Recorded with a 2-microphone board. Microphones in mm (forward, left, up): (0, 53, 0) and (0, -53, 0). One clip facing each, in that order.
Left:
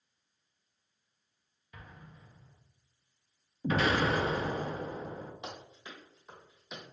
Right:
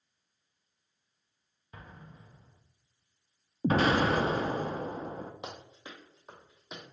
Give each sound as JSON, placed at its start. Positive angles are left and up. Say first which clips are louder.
{"t": 1.7, "sound": "an explosion", "louder": "right 2 dB", "side_deg": -35, "distance_m": 0.5}
{"t": 3.6, "sound": "an explosion", "louder": "right 3 dB", "side_deg": -40, "distance_m": 0.5}
{"t": 5.4, "sound": "running footsteps", "louder": "right 1 dB", "side_deg": -30, "distance_m": 1.9}